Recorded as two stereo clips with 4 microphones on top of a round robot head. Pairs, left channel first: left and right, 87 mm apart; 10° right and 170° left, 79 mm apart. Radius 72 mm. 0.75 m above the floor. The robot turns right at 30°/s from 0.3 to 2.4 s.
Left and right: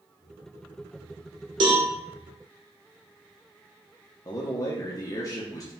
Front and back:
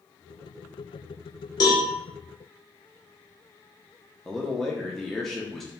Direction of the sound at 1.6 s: 55° right.